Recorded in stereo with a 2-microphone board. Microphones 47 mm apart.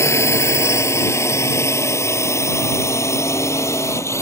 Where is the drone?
75° left (ahead or behind); by 4.2 s 80° left.